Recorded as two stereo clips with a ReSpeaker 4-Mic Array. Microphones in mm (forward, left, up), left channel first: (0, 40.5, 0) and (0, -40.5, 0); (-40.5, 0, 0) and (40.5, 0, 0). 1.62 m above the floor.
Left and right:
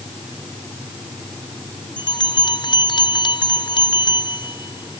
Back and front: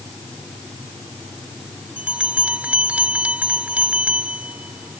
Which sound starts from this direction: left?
A bell, at 2.0 s.